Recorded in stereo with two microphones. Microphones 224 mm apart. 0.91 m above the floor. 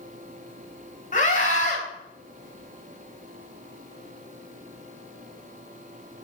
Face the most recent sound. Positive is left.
turn(degrees=35)  # may be behind; listen again after turning